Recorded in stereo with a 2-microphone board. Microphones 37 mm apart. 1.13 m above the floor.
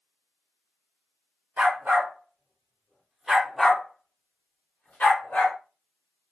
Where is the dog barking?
55° right (ahead or behind), 1.2 m; by 5.6 s 60° left (ahead or behind), 1.3 m.